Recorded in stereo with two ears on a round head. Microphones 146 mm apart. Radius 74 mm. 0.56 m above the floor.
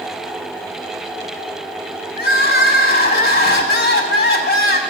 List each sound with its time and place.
2.2 s crying: 55° left (ahead or behind), 1.0 m